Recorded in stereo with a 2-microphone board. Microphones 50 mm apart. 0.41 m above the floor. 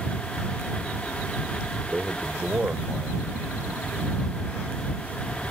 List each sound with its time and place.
1.9 s a man speaking: 25° right (ahead or behind); by 5.4 s 35° right (ahead or behind)